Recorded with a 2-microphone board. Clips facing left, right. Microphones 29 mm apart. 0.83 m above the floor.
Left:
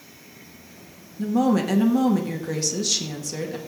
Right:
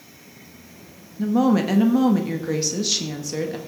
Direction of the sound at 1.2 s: 15° right (ahead or behind).